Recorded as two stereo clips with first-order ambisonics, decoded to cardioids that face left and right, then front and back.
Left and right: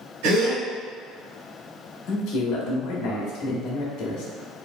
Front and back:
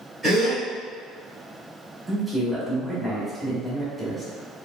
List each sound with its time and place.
0.2 s a gasp: 90° right, 1.9 m
2.1 s a man speaking: 95° left, 1.0 m